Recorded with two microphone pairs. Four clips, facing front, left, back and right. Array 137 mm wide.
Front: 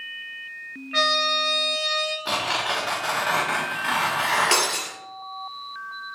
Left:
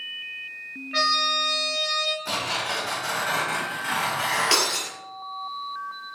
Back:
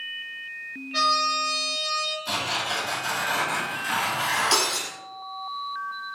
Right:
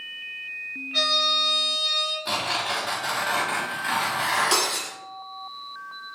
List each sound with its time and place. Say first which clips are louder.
0.9 s a trumpet: left 3 dB, even; 25° left, 3 m
2.2 s tearing paper: right 1 dB, front 5 dB; 5° right, 3.5 m
4.5 s breaking glass: even, front 2 dB; 35° left, 3 m